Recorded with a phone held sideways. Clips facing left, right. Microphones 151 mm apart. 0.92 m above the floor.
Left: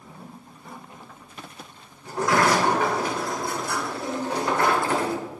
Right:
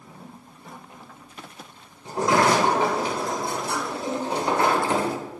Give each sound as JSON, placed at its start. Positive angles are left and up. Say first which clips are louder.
{"t": 2.0, "sound": "a sliding door", "louder": "right 1 dB", "side_deg": -25, "distance_m": 0.8}